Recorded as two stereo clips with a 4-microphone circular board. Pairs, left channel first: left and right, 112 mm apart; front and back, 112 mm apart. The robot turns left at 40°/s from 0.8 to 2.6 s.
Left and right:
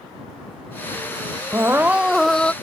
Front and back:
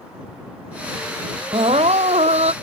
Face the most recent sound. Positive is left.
turn(degrees=165)